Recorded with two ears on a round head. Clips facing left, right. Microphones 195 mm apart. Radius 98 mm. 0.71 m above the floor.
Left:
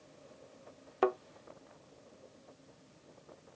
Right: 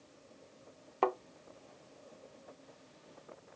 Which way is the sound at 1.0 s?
15° left (ahead or behind).